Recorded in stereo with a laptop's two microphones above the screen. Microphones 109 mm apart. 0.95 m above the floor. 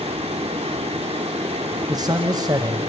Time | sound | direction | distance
0.0 | a fan | 70° right (ahead or behind) | 0.9 m
1.9 | a man speaking | 35° right (ahead or behind) | 0.9 m